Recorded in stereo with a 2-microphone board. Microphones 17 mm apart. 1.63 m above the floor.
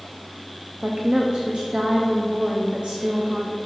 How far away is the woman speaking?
About 0.6 m.